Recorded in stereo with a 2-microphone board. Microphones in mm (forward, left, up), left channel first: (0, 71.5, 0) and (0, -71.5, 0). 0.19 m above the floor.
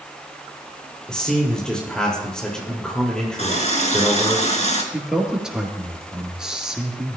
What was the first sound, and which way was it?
A man speaking, 5° left (ahead or behind).